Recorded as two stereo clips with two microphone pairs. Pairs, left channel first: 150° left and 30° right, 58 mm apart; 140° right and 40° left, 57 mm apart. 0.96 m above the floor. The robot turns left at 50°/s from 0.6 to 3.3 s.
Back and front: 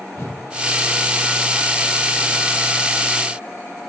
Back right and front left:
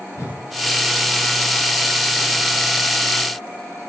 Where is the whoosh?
175° right, 0.7 m.